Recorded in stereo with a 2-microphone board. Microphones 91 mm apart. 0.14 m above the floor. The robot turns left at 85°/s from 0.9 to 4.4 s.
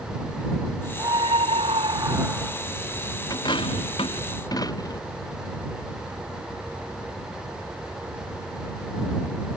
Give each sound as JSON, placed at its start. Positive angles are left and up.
{"t": 1.0, "sound": "a scream", "azimuth_deg": -45}
{"t": 3.3, "sound": "a dropped coin", "side_deg": 45}